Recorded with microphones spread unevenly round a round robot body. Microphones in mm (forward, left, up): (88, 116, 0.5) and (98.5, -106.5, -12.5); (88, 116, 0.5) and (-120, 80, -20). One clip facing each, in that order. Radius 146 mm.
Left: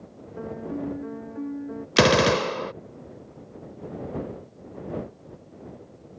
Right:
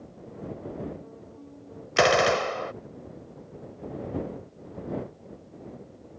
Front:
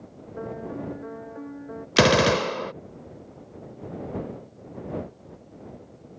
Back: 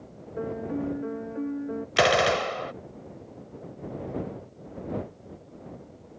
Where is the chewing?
No chewing in this recording.